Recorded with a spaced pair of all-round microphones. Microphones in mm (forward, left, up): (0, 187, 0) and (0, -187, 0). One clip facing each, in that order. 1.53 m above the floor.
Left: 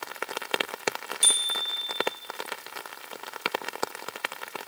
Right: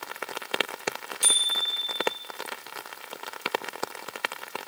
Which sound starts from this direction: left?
A bicycle bell, at 1.2 s.